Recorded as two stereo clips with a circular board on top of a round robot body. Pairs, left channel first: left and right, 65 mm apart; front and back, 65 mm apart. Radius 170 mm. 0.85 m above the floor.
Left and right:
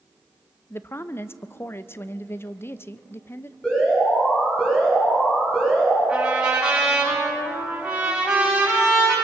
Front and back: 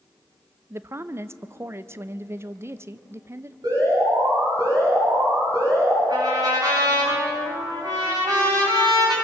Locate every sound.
0.7 s a woman speaking: 135° left, 0.9 m
3.6 s an alarm: 165° left, 10 m
6.1 s a trumpet: 170° right, 8 m